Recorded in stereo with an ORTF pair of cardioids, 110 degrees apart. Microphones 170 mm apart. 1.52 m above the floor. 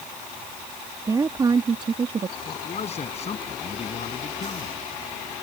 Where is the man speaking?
40° left.